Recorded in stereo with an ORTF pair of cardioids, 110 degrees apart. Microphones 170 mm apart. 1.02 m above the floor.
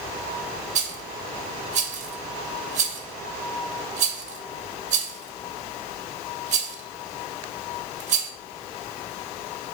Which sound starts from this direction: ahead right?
A rattle, at 0.8 s.